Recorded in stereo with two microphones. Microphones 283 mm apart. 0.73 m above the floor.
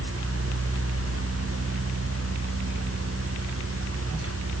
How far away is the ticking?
I don't hear ticking.